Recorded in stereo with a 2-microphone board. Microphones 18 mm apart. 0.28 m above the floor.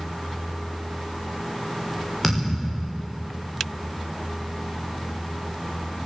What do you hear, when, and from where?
2.2 s a thud: 5° left (ahead or behind), 10 m